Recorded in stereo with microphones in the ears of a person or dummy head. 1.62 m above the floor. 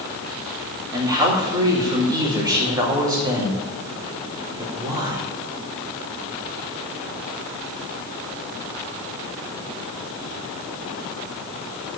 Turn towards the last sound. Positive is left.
turn(degrees=-15)  # may be behind; listen again after turning